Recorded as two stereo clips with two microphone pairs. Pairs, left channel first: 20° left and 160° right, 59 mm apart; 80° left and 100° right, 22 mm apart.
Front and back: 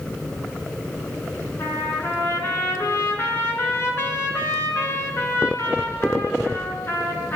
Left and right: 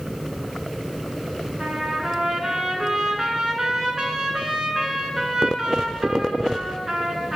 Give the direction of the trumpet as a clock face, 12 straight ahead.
1 o'clock.